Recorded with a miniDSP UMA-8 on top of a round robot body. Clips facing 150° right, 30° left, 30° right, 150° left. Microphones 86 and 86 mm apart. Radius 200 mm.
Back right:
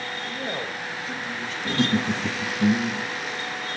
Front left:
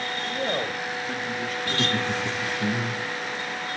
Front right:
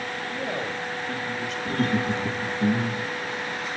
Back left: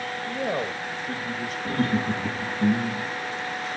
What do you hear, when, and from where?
0.3 s a man speaking: 110° left, 2 m
1.6 s laughter: 155° right, 2 m